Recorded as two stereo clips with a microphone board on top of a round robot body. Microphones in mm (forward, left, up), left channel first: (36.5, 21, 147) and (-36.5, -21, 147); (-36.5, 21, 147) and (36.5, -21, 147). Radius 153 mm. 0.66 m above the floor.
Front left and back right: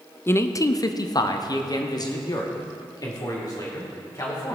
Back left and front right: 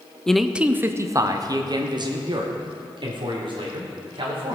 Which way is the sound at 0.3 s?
70° left.